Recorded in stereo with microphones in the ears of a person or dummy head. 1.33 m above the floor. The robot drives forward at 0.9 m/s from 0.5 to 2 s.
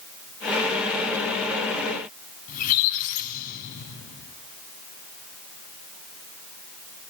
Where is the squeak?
50° left (ahead or behind), 3.5 m.